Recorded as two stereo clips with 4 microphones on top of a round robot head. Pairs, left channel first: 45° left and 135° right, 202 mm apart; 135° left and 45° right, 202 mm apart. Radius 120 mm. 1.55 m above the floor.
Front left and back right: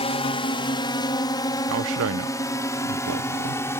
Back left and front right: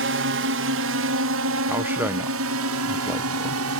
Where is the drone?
20° right; by 3.8 s 35° right.